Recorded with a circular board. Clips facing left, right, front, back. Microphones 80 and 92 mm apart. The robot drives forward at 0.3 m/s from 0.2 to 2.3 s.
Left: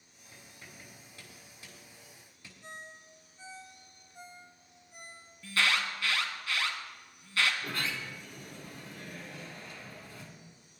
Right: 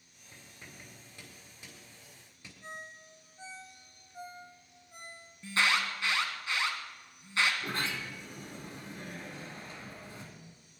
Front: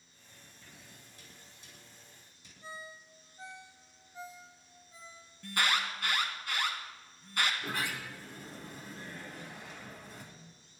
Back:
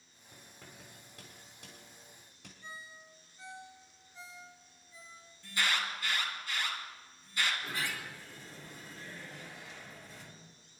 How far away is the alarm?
About 2.5 m.